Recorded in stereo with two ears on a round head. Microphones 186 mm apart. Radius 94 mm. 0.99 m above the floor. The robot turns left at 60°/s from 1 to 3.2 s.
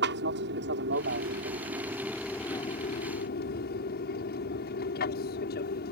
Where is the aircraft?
110° right; by 5.9 s 120° left.